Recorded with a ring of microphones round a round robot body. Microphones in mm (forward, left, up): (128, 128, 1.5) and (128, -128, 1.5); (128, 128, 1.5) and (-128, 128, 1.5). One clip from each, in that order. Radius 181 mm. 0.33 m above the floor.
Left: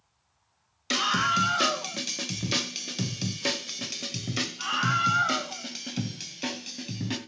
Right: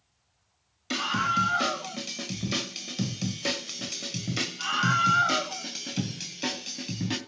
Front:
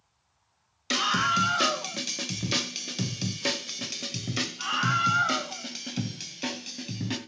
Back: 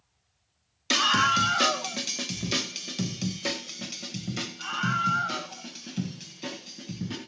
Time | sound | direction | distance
0.9 | a scream | 120° left | 1.8 m